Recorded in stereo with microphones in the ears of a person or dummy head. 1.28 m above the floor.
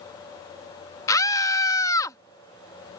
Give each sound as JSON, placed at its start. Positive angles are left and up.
{"t": 1.1, "sound": "a scream", "side_deg": 15}